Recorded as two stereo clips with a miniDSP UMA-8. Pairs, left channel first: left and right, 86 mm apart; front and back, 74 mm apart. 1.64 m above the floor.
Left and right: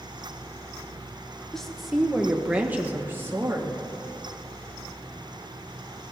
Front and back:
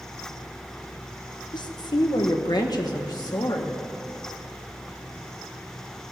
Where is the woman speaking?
5° left, 1.3 m; by 3.9 s 35° right, 1.9 m.